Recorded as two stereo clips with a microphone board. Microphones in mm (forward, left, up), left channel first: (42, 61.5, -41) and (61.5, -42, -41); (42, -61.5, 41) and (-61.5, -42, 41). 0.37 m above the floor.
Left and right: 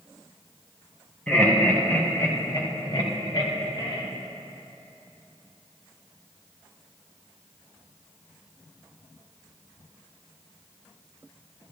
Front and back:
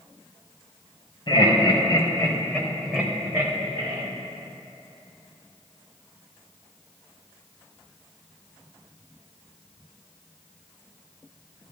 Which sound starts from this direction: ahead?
Laughter, at 1.3 s.